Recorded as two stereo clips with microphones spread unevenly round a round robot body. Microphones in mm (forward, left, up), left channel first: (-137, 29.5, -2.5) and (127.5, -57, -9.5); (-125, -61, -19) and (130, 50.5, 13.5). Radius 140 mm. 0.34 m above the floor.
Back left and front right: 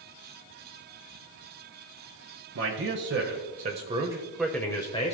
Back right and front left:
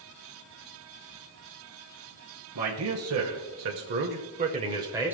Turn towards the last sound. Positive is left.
turn(degrees=115)